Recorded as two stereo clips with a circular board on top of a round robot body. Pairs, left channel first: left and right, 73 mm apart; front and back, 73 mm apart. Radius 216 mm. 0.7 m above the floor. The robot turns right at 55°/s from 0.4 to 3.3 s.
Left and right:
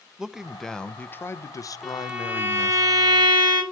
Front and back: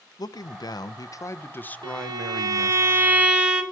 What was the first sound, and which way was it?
A man speaking, 10° right.